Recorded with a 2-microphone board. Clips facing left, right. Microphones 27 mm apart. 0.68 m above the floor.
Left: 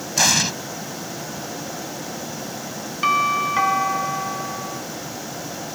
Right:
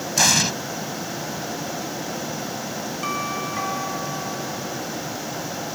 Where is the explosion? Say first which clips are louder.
Even; 5° left (ahead or behind).